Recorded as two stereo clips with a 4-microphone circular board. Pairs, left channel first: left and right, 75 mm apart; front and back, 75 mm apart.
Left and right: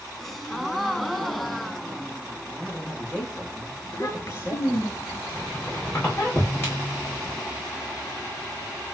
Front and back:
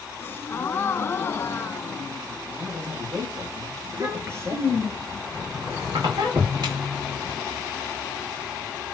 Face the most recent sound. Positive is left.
turn(degrees=155)